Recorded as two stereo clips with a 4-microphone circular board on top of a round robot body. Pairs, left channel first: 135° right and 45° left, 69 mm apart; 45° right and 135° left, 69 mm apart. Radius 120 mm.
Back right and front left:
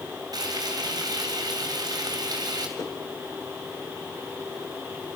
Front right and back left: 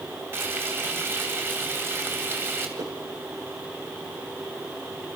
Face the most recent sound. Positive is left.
turn(degrees=175)